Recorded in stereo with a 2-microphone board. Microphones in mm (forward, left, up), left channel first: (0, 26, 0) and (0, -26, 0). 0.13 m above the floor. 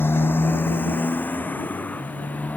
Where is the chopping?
I don't hear chopping.